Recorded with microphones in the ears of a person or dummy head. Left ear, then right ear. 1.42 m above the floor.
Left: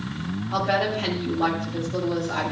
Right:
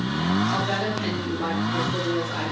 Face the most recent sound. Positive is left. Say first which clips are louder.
# left 2 dB
turn(degrees=20)  # may be behind; listen again after turning